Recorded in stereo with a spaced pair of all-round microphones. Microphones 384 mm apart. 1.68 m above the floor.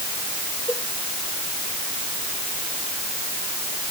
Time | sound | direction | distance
0.7 | a cowbell | 5° left (ahead or behind) | ?